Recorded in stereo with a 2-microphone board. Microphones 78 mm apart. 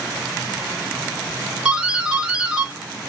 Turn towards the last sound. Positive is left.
turn(degrees=-10)  # may be behind; listen again after turning